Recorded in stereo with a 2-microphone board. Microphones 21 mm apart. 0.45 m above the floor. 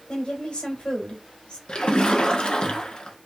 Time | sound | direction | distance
0.1 | a woman speaking | 60° left (ahead or behind) | 1.6 m
1.7 | a splash | 50° left (ahead or behind) | 0.9 m